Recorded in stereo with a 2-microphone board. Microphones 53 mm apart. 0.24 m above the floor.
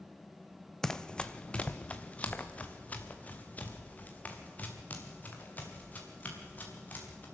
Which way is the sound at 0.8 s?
10° left (ahead or behind).